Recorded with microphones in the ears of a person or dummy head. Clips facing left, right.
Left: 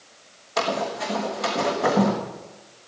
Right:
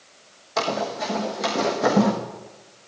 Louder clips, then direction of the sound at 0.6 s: Even; 10° right (ahead or behind).